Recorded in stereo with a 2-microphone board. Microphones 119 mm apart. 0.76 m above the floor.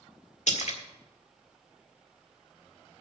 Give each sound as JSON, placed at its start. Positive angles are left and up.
{"t": 0.5, "sound": "a splash", "side_deg": 75, "distance_m": 1.5}